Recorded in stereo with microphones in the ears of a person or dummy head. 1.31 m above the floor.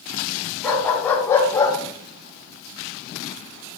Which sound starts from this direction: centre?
A dog barking, at 0.6 s.